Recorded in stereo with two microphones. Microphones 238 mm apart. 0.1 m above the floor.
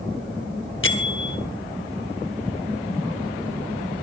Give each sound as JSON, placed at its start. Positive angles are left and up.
{"t": 0.8, "sound": "a bell", "side_deg": 55, "distance_m": 0.8}